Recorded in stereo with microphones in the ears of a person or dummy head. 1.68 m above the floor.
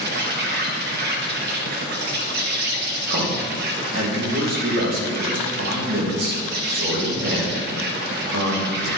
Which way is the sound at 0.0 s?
55° right (ahead or behind).